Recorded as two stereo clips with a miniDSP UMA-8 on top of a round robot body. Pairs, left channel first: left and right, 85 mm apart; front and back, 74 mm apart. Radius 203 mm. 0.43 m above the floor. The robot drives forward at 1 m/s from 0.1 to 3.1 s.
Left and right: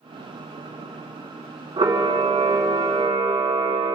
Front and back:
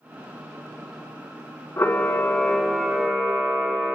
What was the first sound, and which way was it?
A camera shutter, 60° right.